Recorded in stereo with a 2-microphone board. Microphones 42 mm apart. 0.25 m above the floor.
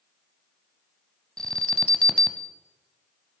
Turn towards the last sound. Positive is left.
turn(degrees=15)  # may be behind; listen again after turning